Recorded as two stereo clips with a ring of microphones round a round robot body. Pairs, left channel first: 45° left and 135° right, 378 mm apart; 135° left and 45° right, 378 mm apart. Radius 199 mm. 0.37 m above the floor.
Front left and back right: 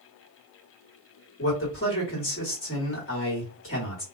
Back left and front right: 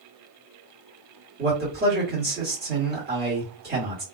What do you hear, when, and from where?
1.4 s a man speaking: 10° left, 1.7 m